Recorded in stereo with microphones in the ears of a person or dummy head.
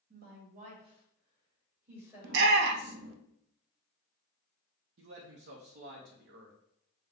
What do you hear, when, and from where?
0.1 s a woman speaking: 55° right (ahead or behind), 1.6 m; by 3.0 s 5° right (ahead or behind), 2.5 m
2.2 s a shout: 65° right (ahead or behind), 0.7 m
5.0 s a man speaking: 70° right (ahead or behind), 0.7 m